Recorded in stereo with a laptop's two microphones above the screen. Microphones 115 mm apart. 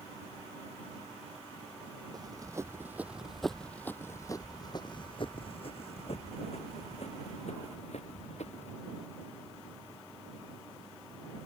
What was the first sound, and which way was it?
Running footsteps, 35° right (ahead or behind).